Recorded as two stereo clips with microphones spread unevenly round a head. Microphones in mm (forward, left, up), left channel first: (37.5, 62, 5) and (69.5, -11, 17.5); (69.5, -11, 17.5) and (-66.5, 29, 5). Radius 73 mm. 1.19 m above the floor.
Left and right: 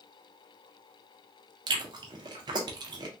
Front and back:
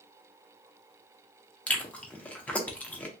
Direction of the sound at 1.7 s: 100° right.